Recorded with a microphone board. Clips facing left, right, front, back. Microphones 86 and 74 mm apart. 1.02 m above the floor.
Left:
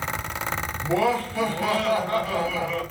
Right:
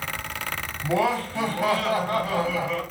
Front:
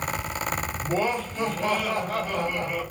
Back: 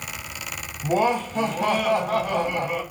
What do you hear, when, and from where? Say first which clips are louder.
0.8 s laughter: left 1 dB, back 6 dB; 175° right, 1.2 m